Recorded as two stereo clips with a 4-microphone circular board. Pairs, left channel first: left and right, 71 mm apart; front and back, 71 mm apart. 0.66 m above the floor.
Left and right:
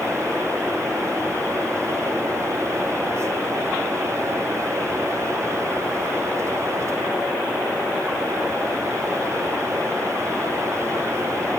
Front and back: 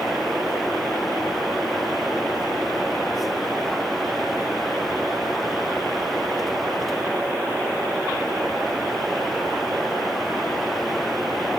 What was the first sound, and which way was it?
Only background noise.